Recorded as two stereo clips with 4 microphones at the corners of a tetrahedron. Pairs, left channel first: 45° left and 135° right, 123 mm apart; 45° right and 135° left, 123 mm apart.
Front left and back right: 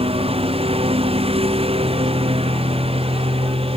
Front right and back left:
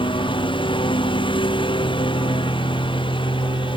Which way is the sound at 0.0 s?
95° right.